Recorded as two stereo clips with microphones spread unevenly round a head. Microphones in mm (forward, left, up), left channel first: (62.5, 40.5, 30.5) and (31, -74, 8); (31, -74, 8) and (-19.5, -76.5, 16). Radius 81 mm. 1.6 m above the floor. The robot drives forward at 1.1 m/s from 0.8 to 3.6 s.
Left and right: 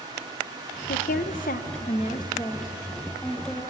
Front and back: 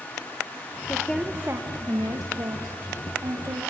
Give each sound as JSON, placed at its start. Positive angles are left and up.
{"t": 0.9, "sound": "a woman speaking", "azimuth_deg": 80, "distance_m": 1.2}